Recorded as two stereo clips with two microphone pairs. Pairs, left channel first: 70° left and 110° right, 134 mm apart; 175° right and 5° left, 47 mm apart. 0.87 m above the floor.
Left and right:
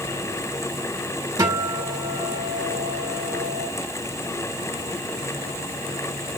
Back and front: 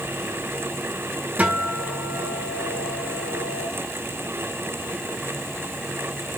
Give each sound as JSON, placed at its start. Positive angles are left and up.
{"t": 1.4, "sound": "a guitar", "azimuth_deg": -50, "distance_m": 1.8}